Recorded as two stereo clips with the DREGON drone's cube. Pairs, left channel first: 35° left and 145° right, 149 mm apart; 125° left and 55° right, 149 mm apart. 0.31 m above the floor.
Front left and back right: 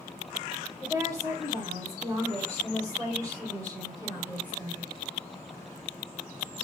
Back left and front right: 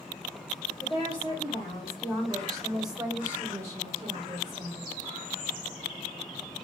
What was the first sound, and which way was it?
A woman speaking, 155° left.